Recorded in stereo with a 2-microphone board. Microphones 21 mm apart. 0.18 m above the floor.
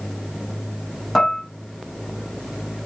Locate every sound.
1.1 s dishes clattering: 25° left (ahead or behind), 0.9 m